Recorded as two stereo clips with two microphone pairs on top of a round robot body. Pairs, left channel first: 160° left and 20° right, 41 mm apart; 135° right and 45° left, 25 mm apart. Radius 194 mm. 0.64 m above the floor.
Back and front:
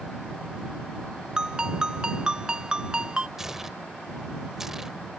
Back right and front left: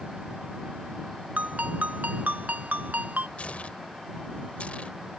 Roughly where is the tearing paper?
Right.